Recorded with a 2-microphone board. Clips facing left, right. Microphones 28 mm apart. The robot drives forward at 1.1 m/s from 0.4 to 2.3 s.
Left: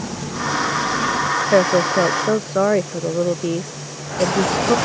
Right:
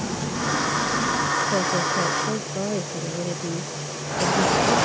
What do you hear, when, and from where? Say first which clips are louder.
1.5 s a woman speaking: left 7 dB; 80° left; by 4.8 s 75° left (ahead or behind)